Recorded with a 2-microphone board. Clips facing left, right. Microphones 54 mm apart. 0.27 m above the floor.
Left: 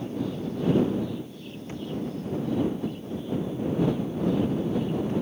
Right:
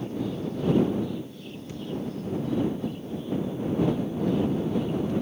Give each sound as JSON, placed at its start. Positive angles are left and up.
{"t": 1.7, "sound": "a thud", "side_deg": 35}